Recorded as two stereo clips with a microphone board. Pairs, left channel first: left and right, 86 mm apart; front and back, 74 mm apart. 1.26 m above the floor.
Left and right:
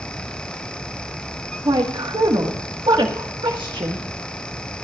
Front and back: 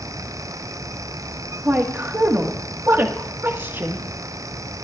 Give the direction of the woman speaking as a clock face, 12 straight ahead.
4 o'clock.